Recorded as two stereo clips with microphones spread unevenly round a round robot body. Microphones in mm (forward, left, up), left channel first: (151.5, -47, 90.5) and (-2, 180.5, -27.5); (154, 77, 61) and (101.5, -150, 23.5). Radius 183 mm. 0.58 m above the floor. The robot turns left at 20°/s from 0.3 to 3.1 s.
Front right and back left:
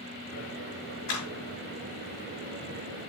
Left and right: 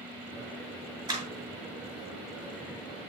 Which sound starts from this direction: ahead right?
A clap, at 1.1 s.